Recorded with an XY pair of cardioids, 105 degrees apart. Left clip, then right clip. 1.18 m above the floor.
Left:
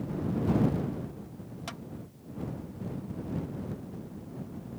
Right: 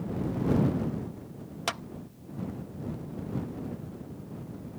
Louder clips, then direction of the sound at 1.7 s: Right 10 dB; 65° right.